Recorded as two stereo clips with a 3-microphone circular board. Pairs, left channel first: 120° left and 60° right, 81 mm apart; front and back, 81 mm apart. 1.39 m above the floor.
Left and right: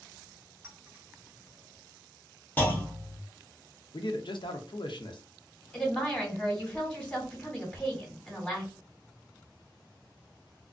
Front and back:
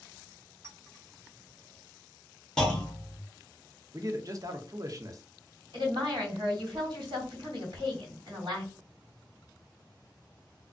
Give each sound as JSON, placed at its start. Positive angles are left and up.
{"t": 0.6, "sound": "a clink", "azimuth_deg": -125, "distance_m": 1.1}
{"t": 2.6, "sound": "a clunk", "azimuth_deg": 75, "distance_m": 0.8}
{"t": 3.9, "sound": "a man speaking", "azimuth_deg": 135, "distance_m": 0.5}
{"t": 5.7, "sound": "a woman speaking", "azimuth_deg": -160, "distance_m": 1.6}